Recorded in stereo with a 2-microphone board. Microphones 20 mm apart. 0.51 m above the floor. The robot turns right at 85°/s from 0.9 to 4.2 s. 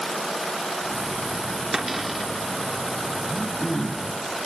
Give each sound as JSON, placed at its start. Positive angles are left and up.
{"t": 1.7, "sound": "a cupboard door", "azimuth_deg": -30, "distance_m": 1.0}
{"t": 3.2, "sound": "throat clearing", "azimuth_deg": 25, "distance_m": 4.0}